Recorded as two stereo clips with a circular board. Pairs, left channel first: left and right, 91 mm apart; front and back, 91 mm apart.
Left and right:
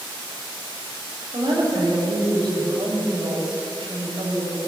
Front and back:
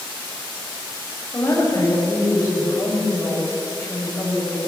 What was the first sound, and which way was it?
A woman speaking, 60° right.